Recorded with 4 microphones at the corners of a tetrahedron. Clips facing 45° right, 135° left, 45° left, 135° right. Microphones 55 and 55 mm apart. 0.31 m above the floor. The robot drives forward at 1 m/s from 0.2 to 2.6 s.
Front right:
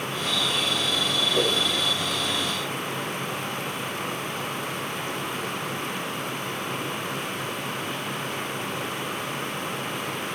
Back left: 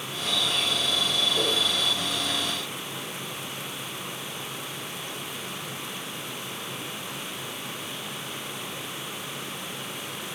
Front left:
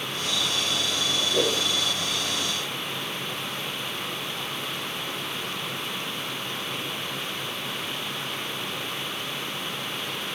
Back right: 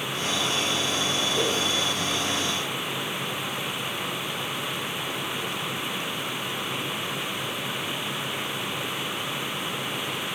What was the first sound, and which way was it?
A whoosh, 5° left.